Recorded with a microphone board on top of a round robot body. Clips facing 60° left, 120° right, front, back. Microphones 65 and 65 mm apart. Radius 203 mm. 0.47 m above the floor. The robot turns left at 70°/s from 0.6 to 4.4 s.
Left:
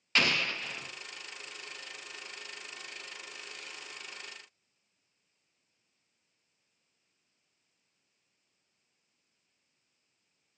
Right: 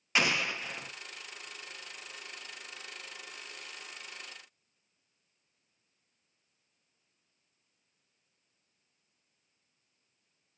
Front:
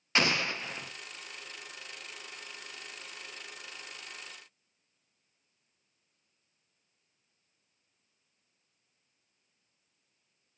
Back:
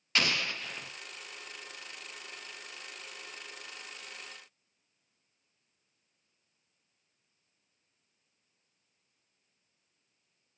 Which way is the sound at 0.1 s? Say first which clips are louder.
Even, front 3 dB; 50° right.